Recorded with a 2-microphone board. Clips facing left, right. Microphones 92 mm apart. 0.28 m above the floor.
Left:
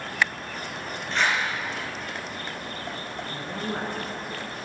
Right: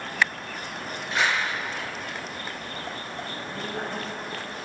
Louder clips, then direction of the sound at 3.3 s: Left 4 dB; 50° left (ahead or behind).